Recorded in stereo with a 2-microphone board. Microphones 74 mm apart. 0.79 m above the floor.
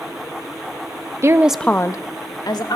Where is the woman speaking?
40° right (ahead or behind), 0.7 m; by 2.8 s 75° left (ahead or behind), 1.8 m.